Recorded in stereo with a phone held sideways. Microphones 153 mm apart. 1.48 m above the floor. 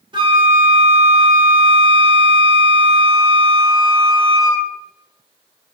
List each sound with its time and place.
0.1 s a flute: 35° right (ahead or behind), 1.5 m